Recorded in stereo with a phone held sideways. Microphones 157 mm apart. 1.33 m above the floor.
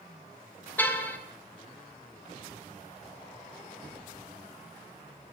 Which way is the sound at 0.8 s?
10° left (ahead or behind).